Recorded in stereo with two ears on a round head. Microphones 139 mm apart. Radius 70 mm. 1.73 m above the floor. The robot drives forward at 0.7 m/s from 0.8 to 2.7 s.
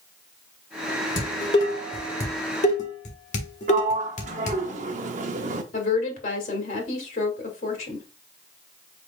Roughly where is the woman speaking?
Left.